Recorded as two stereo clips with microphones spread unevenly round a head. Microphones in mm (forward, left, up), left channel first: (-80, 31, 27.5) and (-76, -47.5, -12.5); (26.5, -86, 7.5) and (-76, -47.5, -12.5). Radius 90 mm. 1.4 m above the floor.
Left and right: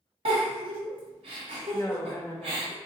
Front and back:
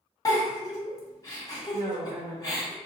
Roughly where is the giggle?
Ahead right.